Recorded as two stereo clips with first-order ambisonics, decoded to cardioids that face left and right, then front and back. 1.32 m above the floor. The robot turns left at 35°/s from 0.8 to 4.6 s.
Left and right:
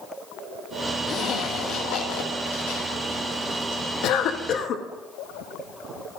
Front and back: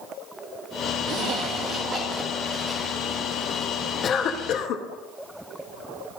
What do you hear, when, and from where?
1.1 s a zipper: 145° left, 2 m; by 3.8 s 50° left, 2 m
4.0 s a cough: 55° left, 1.0 m; by 4.8 s 35° left, 1.0 m